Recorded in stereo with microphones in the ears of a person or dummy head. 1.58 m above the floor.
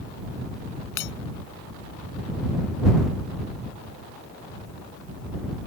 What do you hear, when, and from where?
1.0 s breaking glass: 65° left (ahead or behind)